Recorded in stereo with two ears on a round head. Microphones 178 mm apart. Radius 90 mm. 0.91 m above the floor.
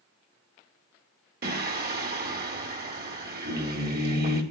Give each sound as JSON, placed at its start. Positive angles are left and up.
{"t": 1.4, "sound": "singing", "side_deg": -55, "distance_m": 2.0}